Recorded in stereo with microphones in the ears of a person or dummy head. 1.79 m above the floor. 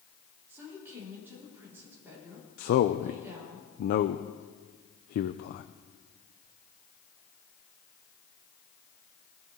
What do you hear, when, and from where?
0.5 s a woman speaking: 15° right (ahead or behind), 5 m
2.6 s a man speaking: 50° left (ahead or behind), 0.5 m